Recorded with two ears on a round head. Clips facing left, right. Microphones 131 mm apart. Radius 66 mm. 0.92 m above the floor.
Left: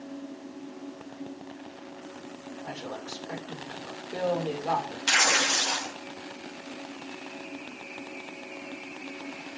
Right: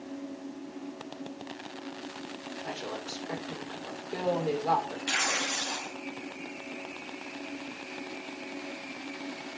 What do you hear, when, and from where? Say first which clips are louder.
2.6 s a woman speaking: even; 5° right (ahead or behind), 3 m
5.1 s tearing paper: left 5 dB; 65° left (ahead or behind), 0.9 m